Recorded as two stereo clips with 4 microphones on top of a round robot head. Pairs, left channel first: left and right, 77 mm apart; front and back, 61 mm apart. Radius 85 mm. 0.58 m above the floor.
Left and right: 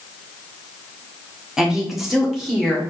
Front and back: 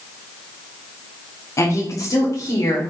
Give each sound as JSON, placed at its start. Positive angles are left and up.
{"t": 1.6, "sound": "a woman speaking", "azimuth_deg": -10, "distance_m": 1.1}